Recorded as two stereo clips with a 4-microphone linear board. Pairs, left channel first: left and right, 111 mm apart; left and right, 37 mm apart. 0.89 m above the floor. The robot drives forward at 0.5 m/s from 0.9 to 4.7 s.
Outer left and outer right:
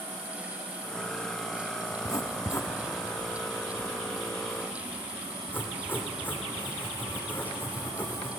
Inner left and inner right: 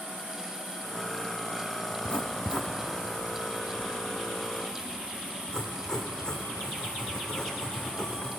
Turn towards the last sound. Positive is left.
turn(degrees=20)  # may be behind; listen again after turning